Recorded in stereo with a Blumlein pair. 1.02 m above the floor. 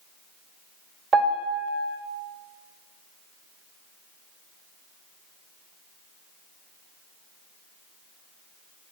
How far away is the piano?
About 1.0 m.